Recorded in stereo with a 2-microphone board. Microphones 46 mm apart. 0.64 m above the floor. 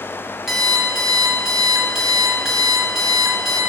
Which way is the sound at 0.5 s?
5° right (ahead or behind).